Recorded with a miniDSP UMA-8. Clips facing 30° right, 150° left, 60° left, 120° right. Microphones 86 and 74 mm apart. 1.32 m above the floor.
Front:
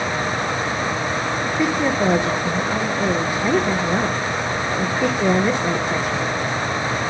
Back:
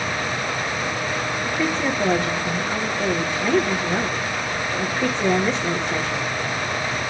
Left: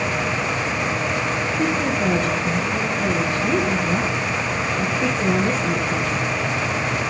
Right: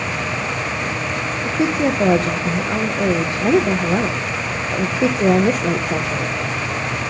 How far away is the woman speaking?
About 1.3 m.